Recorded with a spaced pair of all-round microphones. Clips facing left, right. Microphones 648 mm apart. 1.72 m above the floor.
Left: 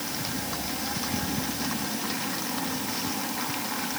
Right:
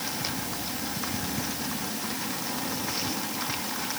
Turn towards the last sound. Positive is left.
No sound to turn to.